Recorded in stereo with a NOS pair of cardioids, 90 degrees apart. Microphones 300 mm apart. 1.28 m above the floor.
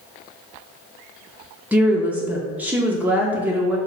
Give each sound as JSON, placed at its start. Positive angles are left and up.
{"t": 1.7, "sound": "a woman speaking", "azimuth_deg": -5, "distance_m": 0.5}